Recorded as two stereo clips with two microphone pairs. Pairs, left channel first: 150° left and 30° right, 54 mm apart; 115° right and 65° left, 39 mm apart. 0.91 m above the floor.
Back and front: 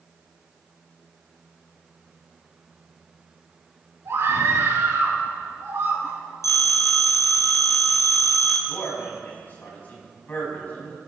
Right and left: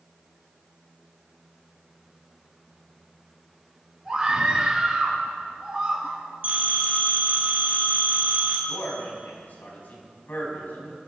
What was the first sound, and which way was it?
A scream, 20° right.